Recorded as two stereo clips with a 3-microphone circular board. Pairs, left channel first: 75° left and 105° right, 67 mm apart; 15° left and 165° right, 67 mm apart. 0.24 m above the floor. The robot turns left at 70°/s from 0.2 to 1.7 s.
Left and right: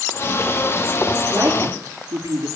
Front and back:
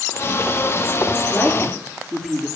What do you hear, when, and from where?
1.3 s a woman speaking: 55° right, 5 m; by 2.5 s 80° right, 5 m